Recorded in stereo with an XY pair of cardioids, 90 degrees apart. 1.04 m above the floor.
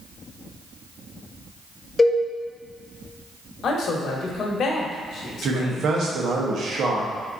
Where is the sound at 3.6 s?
65° left, 1.0 m.